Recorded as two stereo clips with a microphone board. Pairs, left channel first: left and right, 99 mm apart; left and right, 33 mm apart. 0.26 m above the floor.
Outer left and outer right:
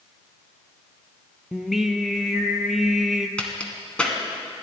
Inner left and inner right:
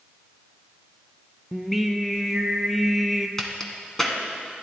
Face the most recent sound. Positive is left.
turn(degrees=10)  # may be behind; listen again after turning